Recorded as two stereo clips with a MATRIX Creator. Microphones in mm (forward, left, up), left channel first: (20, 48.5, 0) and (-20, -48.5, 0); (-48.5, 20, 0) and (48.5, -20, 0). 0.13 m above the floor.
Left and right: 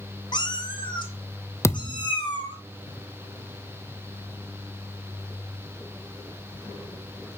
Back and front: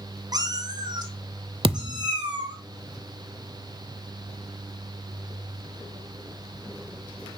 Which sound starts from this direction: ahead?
A thud, at 1.6 s.